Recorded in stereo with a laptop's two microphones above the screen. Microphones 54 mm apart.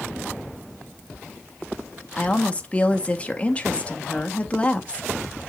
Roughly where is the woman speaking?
Left.